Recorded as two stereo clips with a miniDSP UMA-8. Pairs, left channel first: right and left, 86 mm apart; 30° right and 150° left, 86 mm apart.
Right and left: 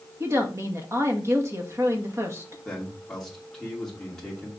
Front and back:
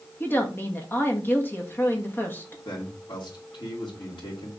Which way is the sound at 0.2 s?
35° left.